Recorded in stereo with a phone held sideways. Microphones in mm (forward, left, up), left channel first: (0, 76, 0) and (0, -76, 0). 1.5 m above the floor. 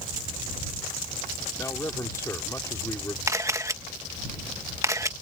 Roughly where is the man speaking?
Centre.